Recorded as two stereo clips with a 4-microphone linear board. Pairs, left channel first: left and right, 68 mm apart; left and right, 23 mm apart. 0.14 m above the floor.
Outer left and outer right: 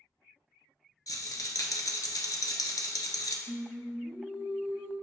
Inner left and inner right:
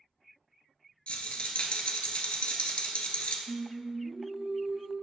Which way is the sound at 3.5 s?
40° right (ahead or behind).